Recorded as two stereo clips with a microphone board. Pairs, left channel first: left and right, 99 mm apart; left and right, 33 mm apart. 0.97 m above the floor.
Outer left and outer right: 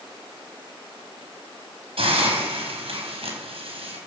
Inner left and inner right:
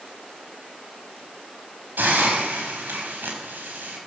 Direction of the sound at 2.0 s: 70° right (ahead or behind).